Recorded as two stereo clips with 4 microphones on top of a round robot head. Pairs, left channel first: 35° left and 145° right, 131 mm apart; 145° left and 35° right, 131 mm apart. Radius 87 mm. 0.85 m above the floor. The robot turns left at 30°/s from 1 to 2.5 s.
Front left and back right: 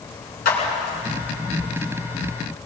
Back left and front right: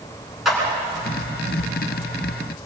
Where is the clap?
50° left, 7.5 m.